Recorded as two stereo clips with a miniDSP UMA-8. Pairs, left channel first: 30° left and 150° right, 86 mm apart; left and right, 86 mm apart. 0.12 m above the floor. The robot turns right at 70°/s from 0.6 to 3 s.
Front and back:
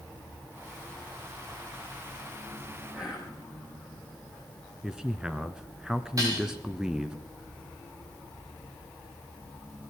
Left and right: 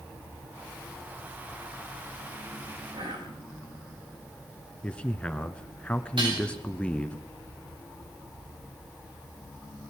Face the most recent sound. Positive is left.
turn(degrees=-100)